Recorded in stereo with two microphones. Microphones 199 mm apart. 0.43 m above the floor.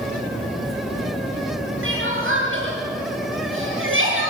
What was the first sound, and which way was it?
Crying, 80° right.